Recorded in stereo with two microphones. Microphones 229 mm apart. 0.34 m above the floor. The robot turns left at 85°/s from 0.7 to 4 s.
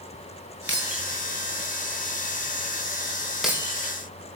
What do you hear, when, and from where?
0.7 s breaking glass: 50° right (ahead or behind), 7 m; by 3.9 s 45° right (ahead or behind), 7 m